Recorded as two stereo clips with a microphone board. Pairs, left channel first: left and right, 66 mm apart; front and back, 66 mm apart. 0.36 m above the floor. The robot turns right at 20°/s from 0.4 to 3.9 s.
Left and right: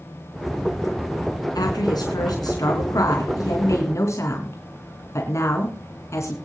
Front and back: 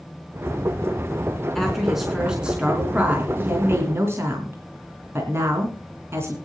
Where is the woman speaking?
85° left, 4 m; by 6.3 s 130° left, 4 m.